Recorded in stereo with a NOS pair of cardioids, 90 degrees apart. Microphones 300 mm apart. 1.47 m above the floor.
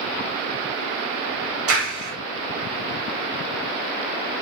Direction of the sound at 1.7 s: 45° right.